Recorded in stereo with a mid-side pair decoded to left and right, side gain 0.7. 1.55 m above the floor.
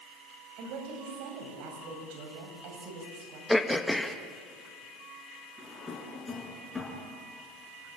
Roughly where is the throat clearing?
Ahead.